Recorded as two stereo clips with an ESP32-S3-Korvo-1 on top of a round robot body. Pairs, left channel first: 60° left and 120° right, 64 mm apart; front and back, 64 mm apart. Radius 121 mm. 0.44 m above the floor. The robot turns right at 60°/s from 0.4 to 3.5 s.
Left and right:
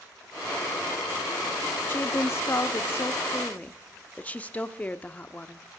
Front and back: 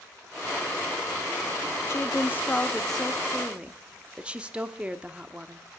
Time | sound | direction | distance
1.9 | a woman speaking | 20° left | 1.2 m